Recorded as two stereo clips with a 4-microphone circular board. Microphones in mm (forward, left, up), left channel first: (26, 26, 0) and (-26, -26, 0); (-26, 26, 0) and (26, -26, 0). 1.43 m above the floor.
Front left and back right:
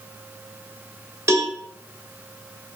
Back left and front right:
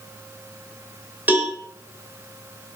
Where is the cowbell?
100° right, 0.6 m.